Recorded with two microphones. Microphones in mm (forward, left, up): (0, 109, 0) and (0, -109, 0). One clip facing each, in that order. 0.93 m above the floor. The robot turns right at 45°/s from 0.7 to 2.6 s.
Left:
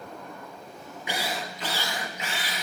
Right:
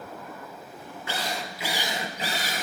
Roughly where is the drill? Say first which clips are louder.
Left 1 dB; behind.